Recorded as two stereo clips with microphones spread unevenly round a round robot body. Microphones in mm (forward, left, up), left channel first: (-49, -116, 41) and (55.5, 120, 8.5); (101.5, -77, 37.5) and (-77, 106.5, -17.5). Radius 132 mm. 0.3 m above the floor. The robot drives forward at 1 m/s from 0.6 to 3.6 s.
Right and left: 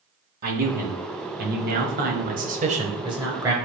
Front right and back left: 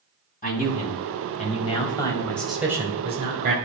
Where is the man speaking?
15° left, 2.5 m; by 3.5 s 140° left, 1.3 m.